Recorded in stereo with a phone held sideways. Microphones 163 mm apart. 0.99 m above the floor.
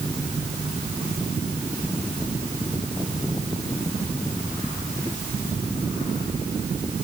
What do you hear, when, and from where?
Only background noise.